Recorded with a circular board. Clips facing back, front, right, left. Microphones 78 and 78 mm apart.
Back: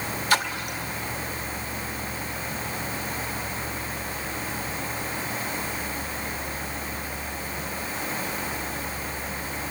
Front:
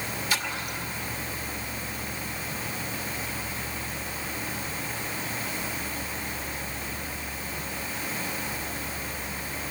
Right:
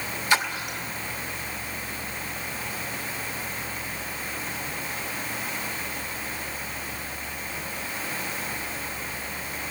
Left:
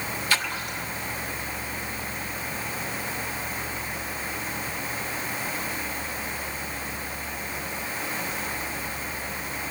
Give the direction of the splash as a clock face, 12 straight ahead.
5 o'clock.